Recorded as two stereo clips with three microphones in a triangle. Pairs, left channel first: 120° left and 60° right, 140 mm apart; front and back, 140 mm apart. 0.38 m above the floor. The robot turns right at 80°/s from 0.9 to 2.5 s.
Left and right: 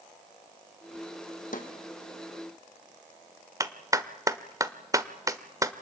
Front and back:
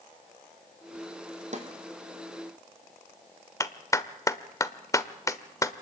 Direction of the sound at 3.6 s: 35° right.